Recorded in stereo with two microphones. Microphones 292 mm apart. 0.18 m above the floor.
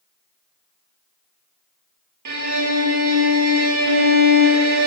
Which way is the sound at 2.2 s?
80° right.